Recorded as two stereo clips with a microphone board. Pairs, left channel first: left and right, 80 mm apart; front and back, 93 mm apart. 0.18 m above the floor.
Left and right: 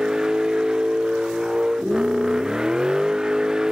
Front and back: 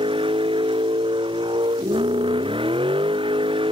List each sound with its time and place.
0.0 s a vehicle: 170° right